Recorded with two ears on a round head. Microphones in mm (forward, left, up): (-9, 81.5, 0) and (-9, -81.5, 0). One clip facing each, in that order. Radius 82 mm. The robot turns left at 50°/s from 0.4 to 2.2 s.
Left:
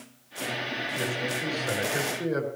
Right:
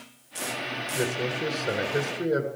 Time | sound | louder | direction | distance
0.9 | a man speaking | right 4 dB | 85° right | 6 m